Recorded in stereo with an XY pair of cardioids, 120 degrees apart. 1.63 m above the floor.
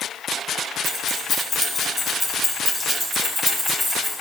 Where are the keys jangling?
45° left, 1.5 m; by 4.1 s 25° right, 2.5 m.